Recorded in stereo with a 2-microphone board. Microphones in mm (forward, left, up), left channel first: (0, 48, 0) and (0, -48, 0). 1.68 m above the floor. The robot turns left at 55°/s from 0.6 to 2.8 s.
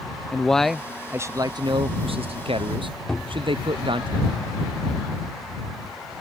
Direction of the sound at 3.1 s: 10° left (ahead or behind).